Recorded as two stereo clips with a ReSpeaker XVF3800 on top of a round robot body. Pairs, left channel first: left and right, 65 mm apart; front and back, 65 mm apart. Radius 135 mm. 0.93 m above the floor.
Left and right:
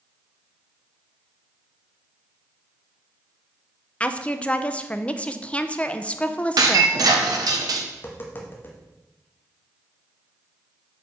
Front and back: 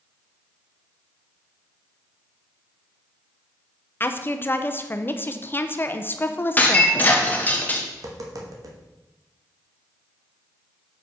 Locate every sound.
4.0 s a woman speaking: 30° left, 0.8 m
6.6 s breaking glass: 65° right, 1.0 m
7.9 s tapping: 150° left, 1.0 m